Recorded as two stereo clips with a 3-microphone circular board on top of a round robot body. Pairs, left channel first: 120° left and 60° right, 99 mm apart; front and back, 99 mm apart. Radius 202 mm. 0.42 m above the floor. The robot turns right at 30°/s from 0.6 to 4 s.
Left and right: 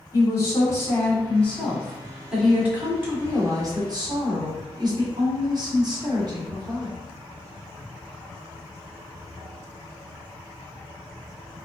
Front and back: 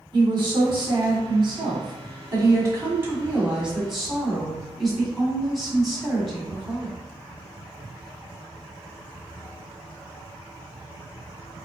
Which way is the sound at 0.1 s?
165° left.